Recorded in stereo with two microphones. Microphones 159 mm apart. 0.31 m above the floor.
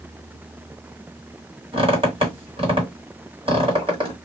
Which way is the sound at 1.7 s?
35° right (ahead or behind).